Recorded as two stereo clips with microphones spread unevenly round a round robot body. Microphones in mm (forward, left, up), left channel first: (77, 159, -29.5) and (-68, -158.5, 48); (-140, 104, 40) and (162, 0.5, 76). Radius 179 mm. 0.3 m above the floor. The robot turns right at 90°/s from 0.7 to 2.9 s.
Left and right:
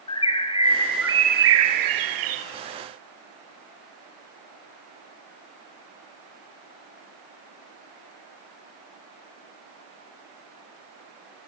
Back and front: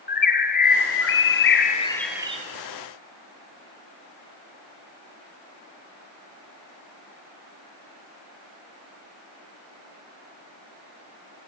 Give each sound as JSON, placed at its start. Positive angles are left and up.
{"t": 0.1, "sound": "a bird", "azimuth_deg": 120, "distance_m": 1.7}